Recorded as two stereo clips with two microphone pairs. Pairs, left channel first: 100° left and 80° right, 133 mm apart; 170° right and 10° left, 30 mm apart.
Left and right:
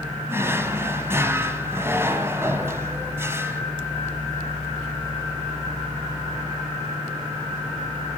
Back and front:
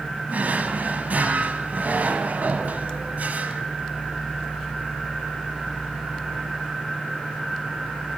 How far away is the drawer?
About 0.9 m.